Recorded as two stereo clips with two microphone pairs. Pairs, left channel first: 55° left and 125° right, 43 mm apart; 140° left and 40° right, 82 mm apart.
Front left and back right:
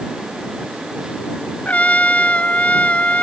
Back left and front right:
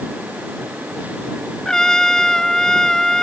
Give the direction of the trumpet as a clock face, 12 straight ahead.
10 o'clock.